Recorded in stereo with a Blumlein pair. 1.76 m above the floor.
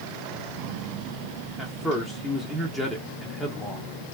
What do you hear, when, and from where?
1.6 s a man speaking: 5° left, 0.7 m